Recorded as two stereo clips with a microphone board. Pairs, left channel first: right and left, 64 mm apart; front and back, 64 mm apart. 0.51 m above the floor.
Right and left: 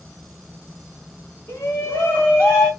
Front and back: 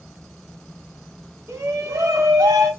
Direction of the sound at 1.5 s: 140° right.